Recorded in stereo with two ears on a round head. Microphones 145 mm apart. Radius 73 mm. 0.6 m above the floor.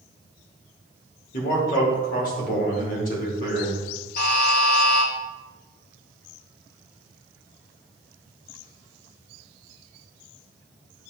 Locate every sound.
1.3 s a man speaking: 55° left (ahead or behind), 1.3 m
4.2 s a buzzer: 55° left (ahead or behind), 1.1 m